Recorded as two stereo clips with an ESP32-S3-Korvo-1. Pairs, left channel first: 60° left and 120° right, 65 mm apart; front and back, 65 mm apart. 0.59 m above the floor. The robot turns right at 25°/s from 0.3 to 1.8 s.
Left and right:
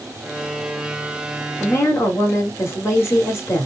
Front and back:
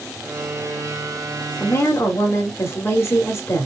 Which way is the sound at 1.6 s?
25° left.